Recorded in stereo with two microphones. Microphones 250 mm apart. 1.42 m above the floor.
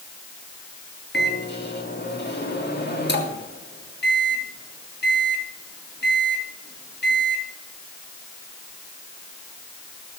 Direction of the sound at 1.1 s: 45° left (ahead or behind).